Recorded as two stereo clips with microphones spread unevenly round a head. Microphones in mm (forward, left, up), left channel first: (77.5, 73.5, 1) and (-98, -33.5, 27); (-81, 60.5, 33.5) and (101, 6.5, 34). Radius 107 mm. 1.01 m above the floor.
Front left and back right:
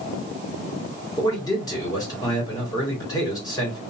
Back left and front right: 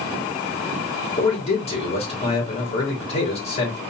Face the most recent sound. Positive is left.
turn(degrees=105)